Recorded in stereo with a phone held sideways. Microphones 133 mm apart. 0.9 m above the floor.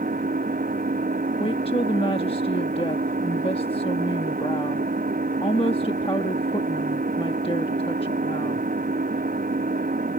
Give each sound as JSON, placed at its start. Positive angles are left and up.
{"t": 0.0, "sound": "an engine running", "side_deg": -90}
{"t": 1.4, "sound": "a woman speaking", "side_deg": 40}